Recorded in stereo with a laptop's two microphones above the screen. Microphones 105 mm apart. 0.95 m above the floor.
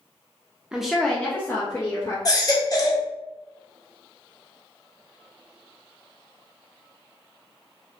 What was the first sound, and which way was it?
A woman speaking, 10° right (ahead or behind).